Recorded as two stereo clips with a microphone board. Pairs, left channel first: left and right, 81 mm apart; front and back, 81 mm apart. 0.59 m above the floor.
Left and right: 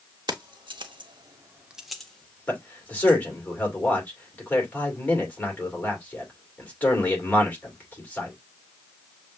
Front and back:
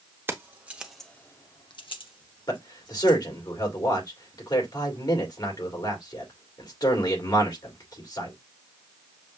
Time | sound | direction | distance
0.3 | keys jangling | 120° right | 1.2 m
2.5 | a man speaking | 25° left | 2.5 m